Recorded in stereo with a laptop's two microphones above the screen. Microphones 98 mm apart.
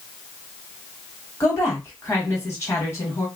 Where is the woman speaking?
30° left (ahead or behind), 1.5 m.